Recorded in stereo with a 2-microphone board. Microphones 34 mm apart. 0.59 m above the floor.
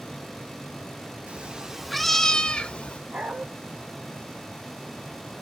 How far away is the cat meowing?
About 0.8 m.